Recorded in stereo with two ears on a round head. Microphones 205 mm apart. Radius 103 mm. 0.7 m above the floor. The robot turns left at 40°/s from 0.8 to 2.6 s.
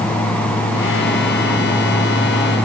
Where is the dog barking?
I don't hear a dog barking.